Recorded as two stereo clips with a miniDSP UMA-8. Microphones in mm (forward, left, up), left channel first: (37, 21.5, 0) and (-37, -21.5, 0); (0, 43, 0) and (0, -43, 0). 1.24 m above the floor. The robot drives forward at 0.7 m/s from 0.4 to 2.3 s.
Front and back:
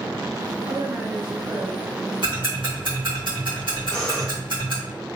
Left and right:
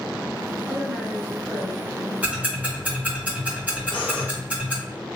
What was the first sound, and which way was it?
A woman speaking, 150° right.